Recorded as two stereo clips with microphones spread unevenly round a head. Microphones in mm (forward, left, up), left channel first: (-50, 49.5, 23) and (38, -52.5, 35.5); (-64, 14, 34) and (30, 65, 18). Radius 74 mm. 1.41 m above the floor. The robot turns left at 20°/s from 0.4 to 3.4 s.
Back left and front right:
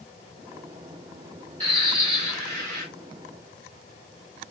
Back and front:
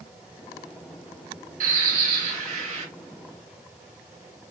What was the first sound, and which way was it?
A bird, 5° left.